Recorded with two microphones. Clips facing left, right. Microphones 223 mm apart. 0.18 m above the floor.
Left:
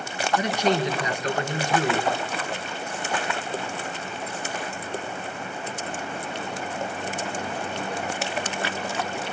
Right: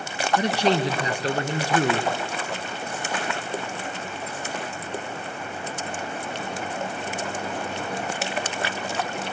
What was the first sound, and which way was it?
A man speaking, 35° right (ahead or behind).